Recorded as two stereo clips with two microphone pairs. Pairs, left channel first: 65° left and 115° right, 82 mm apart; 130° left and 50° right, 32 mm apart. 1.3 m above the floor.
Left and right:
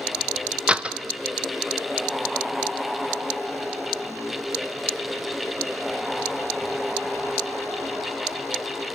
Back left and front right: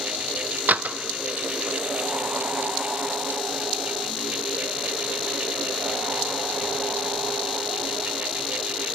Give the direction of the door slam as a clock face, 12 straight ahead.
1 o'clock.